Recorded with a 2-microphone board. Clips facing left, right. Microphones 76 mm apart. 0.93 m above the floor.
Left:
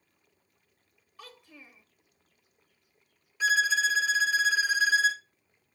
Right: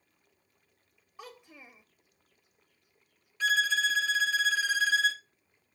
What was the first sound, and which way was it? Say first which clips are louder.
A child speaking: right 2 dB; 20° right (ahead or behind).